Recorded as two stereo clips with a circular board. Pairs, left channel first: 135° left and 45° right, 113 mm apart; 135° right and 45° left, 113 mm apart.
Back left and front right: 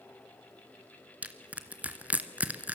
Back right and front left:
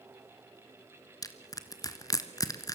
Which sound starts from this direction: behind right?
Crushing, at 1.2 s.